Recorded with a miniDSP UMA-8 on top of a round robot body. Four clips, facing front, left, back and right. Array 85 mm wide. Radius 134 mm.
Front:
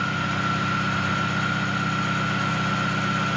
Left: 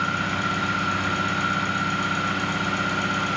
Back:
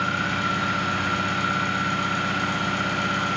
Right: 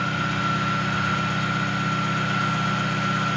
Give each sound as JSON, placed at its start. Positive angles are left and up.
{"t": 0.0, "sound": "an engine running", "azimuth_deg": 130, "distance_m": 1.3}